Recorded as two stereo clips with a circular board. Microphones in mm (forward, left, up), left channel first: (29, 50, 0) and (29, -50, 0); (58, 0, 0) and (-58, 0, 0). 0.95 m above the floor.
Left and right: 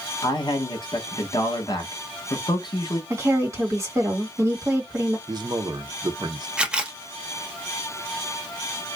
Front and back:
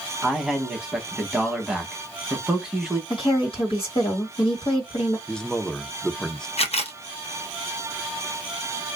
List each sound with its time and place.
0.2 s a man speaking: 95° left, 0.9 m
3.1 s a woman speaking: 30° right, 1.6 m
5.3 s a man speaking: 80° right, 0.6 m
6.6 s a camera shutter: 10° right, 0.5 m